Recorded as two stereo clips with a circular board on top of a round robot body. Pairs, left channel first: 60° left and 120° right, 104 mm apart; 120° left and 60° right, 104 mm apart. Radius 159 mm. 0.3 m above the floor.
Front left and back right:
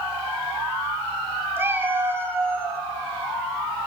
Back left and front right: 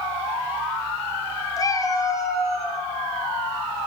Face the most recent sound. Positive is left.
turn(degrees=170)